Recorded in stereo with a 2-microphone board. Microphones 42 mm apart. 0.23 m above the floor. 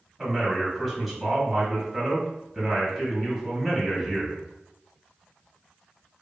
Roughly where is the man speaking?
Centre.